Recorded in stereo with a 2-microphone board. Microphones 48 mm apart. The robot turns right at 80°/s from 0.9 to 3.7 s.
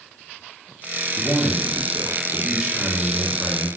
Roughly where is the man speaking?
Behind right.